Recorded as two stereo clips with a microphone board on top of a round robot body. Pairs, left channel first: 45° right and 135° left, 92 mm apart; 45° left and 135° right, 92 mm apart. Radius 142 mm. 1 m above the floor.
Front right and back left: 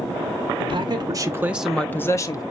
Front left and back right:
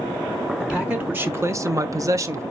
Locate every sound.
0.6 s a man speaking: 145° left, 1.1 m; by 2.4 s 85° right, 1.0 m